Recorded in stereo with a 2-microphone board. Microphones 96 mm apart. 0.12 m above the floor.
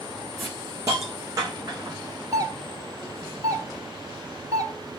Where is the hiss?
35° right (ahead or behind), 4.5 m.